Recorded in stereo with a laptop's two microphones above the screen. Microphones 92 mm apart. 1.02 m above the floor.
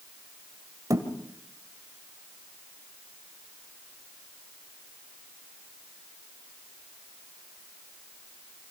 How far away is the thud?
About 2 m.